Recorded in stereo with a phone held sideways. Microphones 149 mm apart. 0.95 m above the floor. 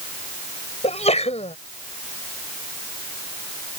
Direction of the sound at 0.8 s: 45° left (ahead or behind).